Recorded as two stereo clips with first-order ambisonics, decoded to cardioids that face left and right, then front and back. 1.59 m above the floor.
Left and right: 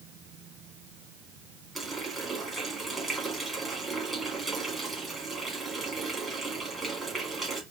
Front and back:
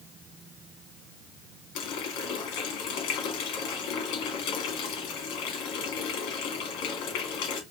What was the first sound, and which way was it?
A running tap, 5° right.